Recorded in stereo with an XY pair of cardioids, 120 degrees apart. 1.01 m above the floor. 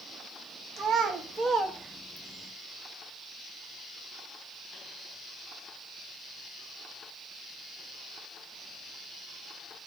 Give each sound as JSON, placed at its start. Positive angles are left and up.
{"t": 0.8, "sound": "a child speaking", "azimuth_deg": -60, "distance_m": 0.8}